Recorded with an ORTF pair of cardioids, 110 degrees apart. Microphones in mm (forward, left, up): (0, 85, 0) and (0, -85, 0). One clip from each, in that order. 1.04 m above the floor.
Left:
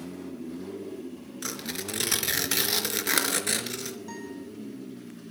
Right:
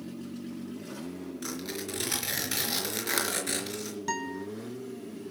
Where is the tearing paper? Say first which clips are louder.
Left 3 dB; 25° left, 4 m.